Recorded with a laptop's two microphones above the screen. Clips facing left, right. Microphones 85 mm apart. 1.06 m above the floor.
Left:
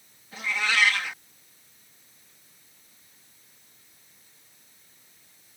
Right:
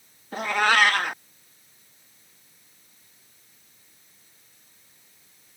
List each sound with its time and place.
0.3 s a cat meowing: 50° right (ahead or behind)